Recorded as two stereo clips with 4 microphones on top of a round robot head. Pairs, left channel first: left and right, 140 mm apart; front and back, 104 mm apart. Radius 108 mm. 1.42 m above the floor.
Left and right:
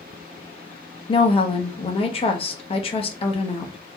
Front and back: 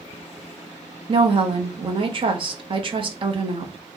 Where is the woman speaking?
140° left, 0.8 m.